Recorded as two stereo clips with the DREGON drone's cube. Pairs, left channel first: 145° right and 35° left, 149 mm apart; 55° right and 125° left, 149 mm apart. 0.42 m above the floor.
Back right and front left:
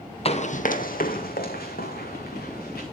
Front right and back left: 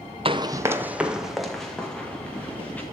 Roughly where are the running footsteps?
Behind.